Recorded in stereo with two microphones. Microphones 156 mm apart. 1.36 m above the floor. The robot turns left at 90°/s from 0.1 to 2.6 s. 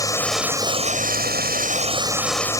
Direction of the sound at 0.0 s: 20° left.